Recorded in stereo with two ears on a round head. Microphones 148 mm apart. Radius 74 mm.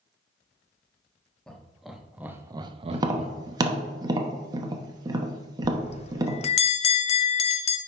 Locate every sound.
1.5 s laughter: 5° left (ahead or behind), 1.1 m; by 3.9 s 35° right (ahead or behind), 0.9 m
2.9 s tapping: 25° right (ahead or behind), 0.8 m
5.6 s a bell: 40° left (ahead or behind), 0.5 m